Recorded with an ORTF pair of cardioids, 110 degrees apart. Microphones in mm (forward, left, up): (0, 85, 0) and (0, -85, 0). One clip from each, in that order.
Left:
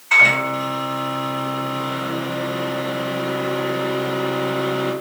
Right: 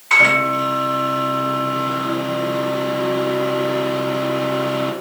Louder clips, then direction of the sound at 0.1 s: Right 1 dB; 50° right.